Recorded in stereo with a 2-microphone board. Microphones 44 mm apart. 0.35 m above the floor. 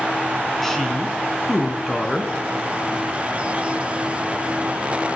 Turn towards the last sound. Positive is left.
turn(degrees=5)  # may be behind; listen again after turning